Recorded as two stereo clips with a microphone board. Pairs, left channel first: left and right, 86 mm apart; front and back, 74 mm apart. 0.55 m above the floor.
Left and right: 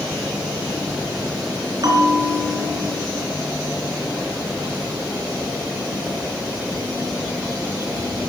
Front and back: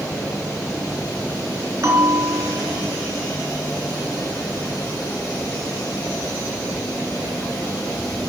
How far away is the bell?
About 3.5 m.